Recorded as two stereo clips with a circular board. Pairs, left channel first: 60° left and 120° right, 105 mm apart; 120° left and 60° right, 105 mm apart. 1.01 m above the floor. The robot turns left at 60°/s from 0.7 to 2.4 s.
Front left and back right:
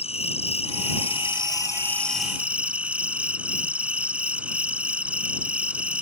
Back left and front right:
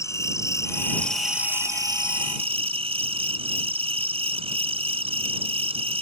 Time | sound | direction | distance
0.0 | an insect | 60° left | ?